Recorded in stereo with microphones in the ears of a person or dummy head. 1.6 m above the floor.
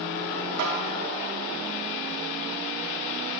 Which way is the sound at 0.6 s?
65° right (ahead or behind).